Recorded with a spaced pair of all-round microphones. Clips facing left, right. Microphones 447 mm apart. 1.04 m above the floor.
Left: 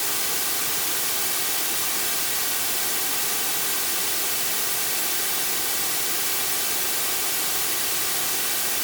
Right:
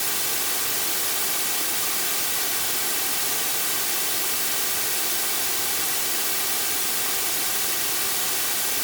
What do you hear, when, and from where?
Only background noise.